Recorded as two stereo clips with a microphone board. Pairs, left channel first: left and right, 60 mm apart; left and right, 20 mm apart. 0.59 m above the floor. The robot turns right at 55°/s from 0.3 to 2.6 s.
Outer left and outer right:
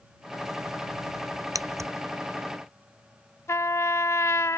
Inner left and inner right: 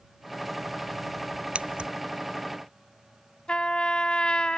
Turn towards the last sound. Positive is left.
turn(degrees=55)  # may be behind; listen again after turning